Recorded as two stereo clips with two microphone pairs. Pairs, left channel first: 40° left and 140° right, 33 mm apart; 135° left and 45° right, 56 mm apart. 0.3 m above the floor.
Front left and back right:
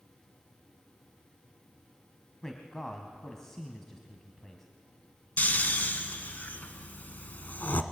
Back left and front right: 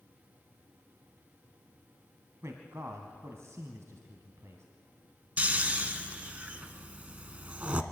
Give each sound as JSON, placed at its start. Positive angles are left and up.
{"t": 2.4, "sound": "a man speaking", "azimuth_deg": -35, "distance_m": 1.8}
{"t": 5.4, "sound": "snoring", "azimuth_deg": 20, "distance_m": 1.0}